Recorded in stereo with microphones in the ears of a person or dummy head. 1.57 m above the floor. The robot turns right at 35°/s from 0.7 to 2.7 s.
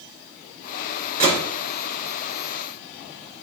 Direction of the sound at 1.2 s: 45° right (ahead or behind).